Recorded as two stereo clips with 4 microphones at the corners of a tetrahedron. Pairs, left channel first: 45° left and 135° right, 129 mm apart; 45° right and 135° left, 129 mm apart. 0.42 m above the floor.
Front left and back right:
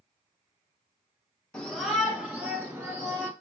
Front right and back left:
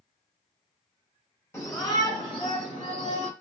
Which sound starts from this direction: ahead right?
A shout, at 1.5 s.